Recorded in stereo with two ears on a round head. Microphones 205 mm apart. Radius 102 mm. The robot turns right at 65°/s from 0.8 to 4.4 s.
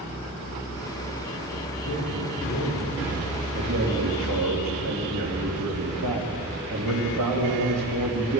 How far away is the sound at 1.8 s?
About 6 m.